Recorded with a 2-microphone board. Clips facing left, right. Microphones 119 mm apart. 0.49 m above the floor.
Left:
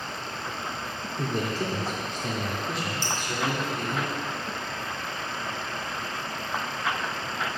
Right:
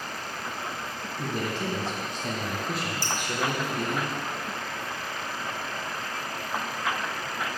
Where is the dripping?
25° left (ahead or behind), 1.3 m.